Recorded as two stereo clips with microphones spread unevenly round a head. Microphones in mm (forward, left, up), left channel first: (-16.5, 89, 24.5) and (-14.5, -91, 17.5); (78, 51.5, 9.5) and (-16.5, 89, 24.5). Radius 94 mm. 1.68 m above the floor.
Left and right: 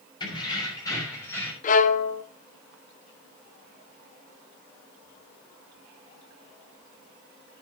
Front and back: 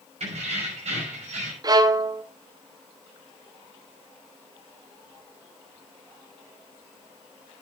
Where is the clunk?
I don't hear a clunk.